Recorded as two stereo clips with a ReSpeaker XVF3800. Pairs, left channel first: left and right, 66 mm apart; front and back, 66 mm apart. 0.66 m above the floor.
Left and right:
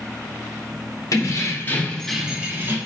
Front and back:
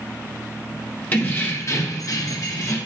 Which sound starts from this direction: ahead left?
Keys jangling, at 1.1 s.